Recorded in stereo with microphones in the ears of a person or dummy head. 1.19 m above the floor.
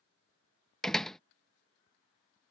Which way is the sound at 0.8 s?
5° left (ahead or behind).